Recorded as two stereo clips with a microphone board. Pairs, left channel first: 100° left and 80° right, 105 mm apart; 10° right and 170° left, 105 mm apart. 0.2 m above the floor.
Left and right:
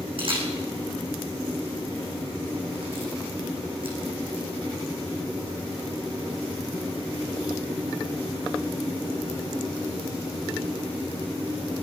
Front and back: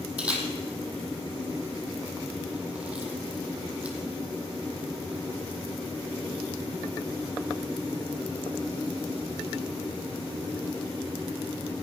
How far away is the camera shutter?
About 3.5 m.